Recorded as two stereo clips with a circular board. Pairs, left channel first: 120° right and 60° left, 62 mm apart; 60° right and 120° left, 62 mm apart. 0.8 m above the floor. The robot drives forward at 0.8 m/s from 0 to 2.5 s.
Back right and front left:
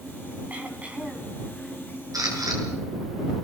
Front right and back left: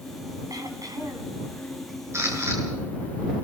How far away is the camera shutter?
About 7 m.